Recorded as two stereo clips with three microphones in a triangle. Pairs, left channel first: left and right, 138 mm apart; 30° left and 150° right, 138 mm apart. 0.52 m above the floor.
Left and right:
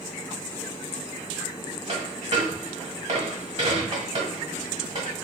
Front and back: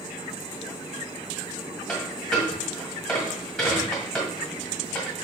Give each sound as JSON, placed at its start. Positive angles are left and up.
{"t": 1.9, "sound": "a dropped coin", "azimuth_deg": -60, "distance_m": 1.3}